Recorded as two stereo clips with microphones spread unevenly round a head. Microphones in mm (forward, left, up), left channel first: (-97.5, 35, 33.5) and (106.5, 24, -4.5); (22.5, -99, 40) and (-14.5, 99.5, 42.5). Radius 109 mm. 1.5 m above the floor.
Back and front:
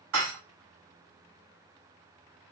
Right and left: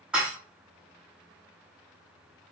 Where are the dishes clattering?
15° left, 1.7 m.